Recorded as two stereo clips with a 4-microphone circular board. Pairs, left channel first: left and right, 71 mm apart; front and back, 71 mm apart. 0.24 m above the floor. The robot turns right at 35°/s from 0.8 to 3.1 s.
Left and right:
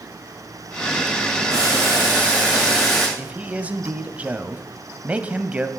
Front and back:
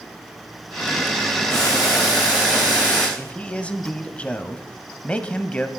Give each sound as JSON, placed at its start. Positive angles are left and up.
{"t": 1.5, "sound": "boiling", "azimuth_deg": -50, "distance_m": 8.0}
{"t": 3.2, "sound": "a man speaking", "azimuth_deg": -50, "distance_m": 1.0}